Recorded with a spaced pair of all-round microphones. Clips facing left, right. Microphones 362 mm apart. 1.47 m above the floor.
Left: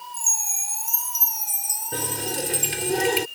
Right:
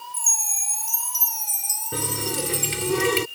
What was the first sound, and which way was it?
A chime, 55° right (ahead or behind).